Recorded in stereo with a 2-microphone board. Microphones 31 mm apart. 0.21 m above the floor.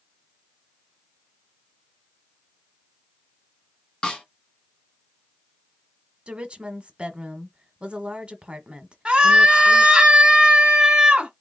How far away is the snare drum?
About 1.6 m.